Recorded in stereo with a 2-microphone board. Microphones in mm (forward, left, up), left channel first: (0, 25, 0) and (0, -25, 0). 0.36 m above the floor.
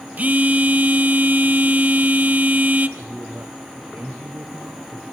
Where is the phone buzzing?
35° right (ahead or behind), 1.0 m.